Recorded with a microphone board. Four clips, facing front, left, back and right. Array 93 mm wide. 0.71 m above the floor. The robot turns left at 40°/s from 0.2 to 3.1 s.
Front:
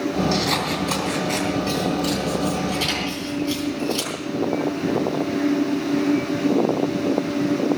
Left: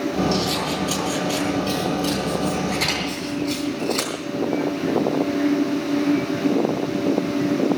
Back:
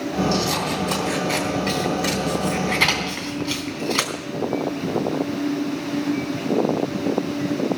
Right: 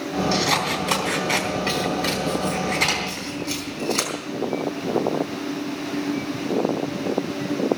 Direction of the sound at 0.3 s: 60° right.